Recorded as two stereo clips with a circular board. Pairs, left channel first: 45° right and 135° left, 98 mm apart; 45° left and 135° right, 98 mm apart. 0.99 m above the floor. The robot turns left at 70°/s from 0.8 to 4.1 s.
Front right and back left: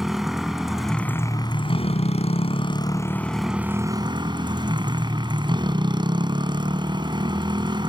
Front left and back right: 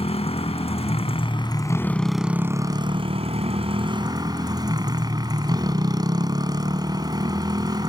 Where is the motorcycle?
50° left; by 7.9 s 175° left.